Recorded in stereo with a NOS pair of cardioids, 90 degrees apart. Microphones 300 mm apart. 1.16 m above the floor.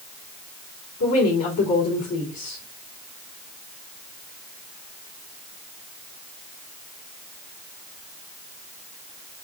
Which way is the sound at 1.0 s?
65° left.